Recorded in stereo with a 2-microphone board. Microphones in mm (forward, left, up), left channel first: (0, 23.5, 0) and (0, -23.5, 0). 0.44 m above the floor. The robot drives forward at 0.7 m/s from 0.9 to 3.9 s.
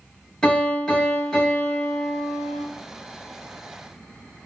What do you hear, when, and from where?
0.4 s a piano: 15° left (ahead or behind), 1.5 m; by 2.6 s 20° left (ahead or behind), 1.0 m